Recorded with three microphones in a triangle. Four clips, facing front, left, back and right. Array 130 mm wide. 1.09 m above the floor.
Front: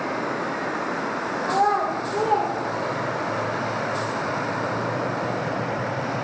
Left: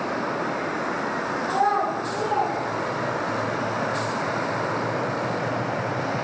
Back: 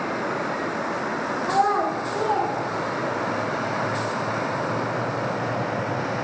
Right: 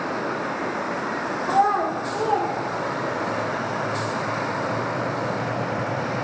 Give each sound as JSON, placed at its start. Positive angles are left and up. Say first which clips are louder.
{"t": 1.4, "sound": "a child speaking", "louder": "right 3 dB, even", "azimuth_deg": -150, "distance_m": 2.0}